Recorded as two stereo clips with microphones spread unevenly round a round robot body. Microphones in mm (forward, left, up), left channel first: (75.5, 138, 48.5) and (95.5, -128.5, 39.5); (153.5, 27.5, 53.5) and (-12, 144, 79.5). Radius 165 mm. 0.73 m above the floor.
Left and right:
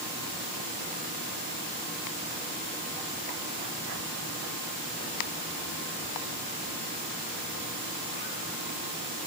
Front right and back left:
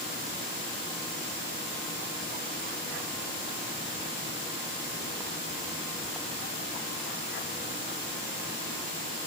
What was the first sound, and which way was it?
Only background noise.